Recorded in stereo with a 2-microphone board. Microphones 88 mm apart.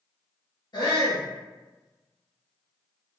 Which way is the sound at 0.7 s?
55° left (ahead or behind).